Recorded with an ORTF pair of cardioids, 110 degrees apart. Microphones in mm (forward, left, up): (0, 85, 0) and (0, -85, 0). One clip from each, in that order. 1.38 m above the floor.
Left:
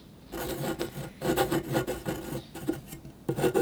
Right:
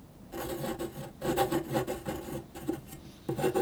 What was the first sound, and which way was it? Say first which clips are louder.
Writing: left 3 dB; 25° left.